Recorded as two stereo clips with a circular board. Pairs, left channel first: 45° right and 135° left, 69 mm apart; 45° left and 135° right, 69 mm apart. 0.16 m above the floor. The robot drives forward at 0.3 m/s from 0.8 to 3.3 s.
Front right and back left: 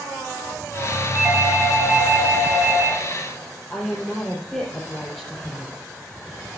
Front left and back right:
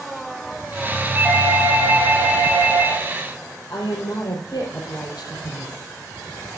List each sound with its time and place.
1.1 s a doorbell: straight behind, 1.8 m
3.7 s a woman speaking: 40° left, 4 m